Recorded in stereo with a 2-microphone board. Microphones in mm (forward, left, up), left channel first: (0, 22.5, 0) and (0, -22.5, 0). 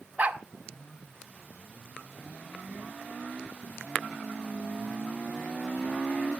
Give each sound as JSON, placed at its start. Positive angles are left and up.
{"t": 0.2, "sound": "a dog barking", "side_deg": -35, "distance_m": 2.0}